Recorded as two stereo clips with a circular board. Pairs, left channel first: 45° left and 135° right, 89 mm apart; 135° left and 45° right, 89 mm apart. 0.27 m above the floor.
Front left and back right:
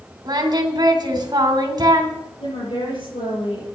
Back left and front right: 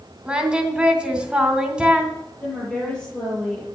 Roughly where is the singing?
Behind right.